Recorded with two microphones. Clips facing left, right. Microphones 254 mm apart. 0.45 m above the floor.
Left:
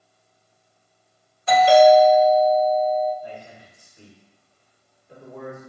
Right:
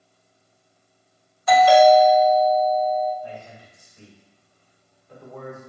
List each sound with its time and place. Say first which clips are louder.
1.5 s a doorbell: left 1 dB; 30° left (ahead or behind), 1.5 m
3.2 s a man speaking: right 1 dB; 20° left (ahead or behind), 1.4 m